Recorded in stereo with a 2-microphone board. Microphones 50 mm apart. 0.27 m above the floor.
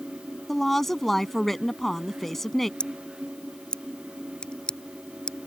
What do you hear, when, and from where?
0.5 s a woman speaking: 5° left (ahead or behind)
2.8 s scissors: 20° left (ahead or behind)